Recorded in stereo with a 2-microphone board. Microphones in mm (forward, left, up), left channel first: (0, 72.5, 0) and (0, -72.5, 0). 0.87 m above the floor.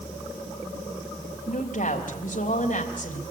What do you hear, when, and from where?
1.5 s a woman speaking: 70° left (ahead or behind), 3.5 m